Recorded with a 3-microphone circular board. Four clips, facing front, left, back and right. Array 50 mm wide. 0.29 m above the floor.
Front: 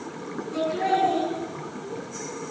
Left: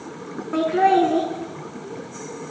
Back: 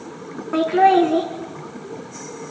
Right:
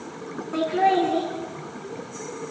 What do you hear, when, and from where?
0.5 s laughter: 160° left, 2.5 m